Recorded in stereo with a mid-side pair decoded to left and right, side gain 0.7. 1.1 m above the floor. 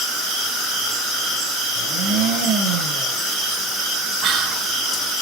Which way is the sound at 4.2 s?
50° right.